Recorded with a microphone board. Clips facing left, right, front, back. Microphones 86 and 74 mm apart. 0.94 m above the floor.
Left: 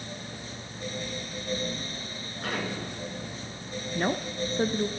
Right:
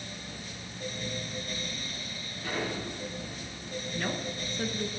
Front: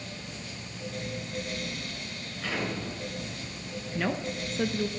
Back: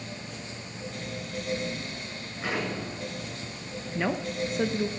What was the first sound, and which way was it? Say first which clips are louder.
An explosion: left 1 dB, back 2 dB; 115° left.